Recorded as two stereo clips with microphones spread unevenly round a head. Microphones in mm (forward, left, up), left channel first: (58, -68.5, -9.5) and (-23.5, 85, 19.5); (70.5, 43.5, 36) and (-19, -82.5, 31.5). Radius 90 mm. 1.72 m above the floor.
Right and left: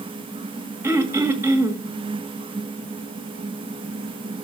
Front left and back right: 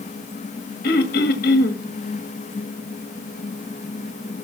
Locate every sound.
0.8 s throat clearing: 50° left, 1.8 m